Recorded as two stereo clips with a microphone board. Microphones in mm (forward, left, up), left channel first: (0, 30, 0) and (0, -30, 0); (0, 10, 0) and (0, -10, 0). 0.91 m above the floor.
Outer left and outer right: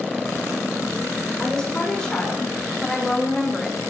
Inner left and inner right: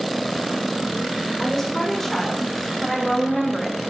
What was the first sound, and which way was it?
A woman speaking, 10° left (ahead or behind).